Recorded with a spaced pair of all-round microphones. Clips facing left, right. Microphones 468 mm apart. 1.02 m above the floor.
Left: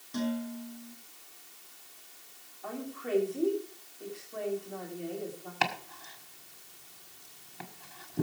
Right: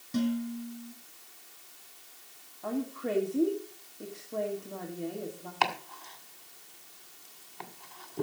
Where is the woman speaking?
65° right (ahead or behind), 2.5 m.